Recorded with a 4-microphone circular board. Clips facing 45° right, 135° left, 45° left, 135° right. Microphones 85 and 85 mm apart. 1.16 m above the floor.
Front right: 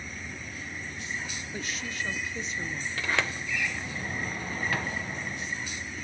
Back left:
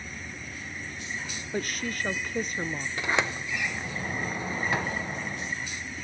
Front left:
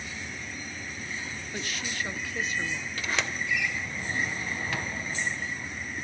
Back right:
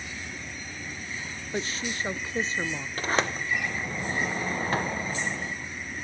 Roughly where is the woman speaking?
Behind.